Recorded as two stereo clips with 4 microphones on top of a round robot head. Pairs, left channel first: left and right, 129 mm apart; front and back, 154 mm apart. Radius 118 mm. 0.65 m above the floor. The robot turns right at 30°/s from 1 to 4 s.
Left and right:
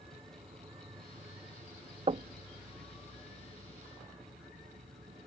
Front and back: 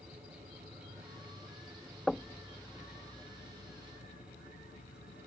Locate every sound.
0.0 s an insect: 130° right; by 5.3 s 40° right
2.1 s knocking: 90° right; by 2.4 s 80° right